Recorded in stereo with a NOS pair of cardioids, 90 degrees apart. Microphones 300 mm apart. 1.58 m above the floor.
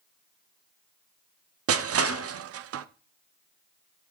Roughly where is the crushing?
Ahead right.